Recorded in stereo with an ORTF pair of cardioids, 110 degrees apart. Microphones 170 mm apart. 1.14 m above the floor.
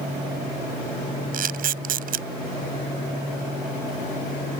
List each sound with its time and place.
1.3 s a camera shutter: 55° right